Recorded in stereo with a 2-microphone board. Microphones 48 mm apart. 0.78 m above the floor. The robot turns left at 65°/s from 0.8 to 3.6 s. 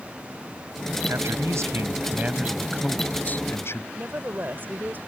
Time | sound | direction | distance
1.1 | a man speaking | 75° right | ?
3.9 | a woman speaking | 40° right (ahead or behind) | ?